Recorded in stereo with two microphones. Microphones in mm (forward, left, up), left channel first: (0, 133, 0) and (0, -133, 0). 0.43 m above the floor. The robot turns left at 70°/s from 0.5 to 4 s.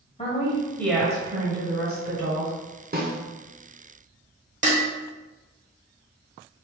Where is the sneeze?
I don't hear a sneeze.